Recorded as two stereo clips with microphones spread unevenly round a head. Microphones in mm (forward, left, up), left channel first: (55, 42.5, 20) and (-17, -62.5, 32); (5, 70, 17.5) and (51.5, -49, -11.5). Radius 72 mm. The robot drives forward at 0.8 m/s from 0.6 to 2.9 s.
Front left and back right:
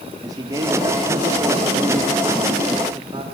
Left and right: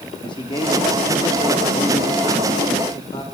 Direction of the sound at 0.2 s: 170° left.